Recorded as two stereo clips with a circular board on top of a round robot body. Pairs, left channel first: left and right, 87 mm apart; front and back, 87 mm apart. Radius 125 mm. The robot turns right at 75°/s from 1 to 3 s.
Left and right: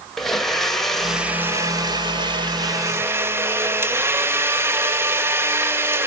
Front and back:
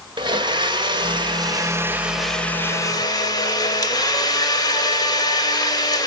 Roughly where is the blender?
Behind.